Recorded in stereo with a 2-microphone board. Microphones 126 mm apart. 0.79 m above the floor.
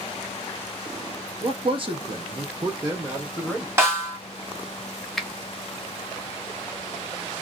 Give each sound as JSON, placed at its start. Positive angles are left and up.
{"t": 1.4, "sound": "a man speaking", "side_deg": -45, "distance_m": 0.9}
{"t": 3.8, "sound": "a snare drum", "side_deg": -20, "distance_m": 1.3}
{"t": 5.2, "sound": "a finger snap", "side_deg": 0, "distance_m": 0.5}